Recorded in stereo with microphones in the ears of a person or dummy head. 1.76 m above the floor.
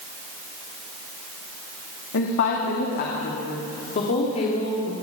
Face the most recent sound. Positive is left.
turn(degrees=35)  # may be behind; listen again after turning